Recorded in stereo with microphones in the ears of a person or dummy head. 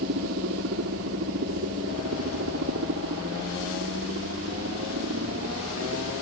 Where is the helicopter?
75° right (ahead or behind).